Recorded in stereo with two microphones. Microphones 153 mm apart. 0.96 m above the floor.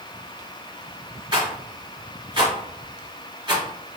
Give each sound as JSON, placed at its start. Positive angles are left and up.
{"t": 1.3, "sound": "a rattle", "side_deg": -30, "distance_m": 1.7}